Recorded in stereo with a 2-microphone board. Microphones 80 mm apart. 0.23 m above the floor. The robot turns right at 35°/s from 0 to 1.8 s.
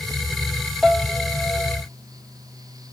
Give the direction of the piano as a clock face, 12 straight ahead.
12 o'clock.